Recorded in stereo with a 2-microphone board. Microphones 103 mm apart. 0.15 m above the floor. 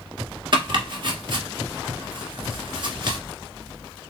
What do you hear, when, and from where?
0.5 s chopping: 55° right (ahead or behind), 1.3 m